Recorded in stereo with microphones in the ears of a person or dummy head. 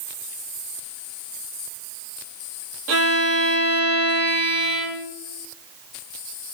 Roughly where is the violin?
Right.